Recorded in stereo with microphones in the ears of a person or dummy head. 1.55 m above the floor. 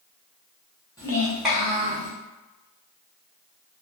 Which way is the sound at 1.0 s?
20° left (ahead or behind).